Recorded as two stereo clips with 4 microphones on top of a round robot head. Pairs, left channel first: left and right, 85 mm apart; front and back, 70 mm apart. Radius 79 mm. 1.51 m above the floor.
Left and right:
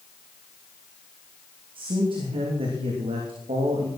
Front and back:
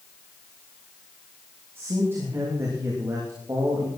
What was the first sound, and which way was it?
A man speaking, 115° right.